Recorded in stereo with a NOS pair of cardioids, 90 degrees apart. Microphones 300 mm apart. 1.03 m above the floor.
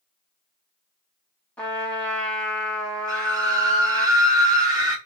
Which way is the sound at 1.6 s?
5° left.